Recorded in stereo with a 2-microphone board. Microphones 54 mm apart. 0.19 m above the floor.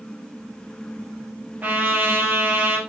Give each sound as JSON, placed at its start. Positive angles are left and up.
{"t": 1.6, "sound": "a trumpet", "side_deg": -30, "distance_m": 4.0}